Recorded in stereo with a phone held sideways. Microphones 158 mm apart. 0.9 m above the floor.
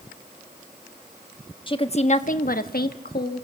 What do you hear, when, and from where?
1.7 s a woman speaking: 30° left (ahead or behind), 1.2 m; by 3.4 s 70° left (ahead or behind), 1.4 m